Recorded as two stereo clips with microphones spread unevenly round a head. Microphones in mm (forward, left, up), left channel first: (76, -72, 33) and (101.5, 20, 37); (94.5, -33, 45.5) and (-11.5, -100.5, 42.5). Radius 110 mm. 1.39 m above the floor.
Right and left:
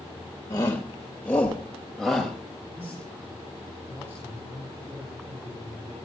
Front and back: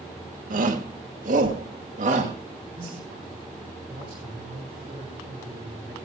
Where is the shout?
175° right, 1.6 m; by 2.3 s 165° left, 2.5 m.